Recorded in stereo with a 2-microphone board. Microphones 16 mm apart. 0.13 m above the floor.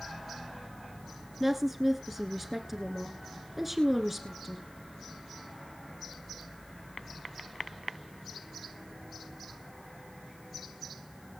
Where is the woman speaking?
10° right (ahead or behind), 1.4 m.